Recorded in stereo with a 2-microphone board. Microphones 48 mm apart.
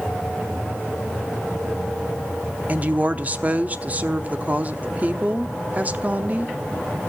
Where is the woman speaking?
35° right (ahead or behind), 0.7 m.